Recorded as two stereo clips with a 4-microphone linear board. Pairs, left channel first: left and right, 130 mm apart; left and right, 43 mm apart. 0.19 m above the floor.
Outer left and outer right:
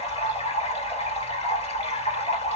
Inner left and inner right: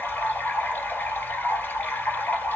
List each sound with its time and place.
0.0 s running water: 50° left (ahead or behind), 2 m